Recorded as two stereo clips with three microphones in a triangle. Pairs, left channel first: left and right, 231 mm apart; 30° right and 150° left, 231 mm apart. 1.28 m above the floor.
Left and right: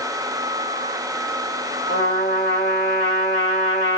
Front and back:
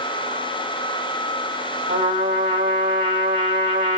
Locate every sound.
1.9 s a trumpet: 130° left, 1.8 m